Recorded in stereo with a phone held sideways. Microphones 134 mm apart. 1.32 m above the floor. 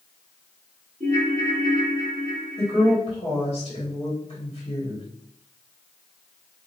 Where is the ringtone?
45° right (ahead or behind), 1.4 m.